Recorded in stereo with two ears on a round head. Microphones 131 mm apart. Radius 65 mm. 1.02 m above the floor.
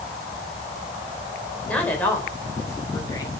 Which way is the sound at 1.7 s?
10° left (ahead or behind).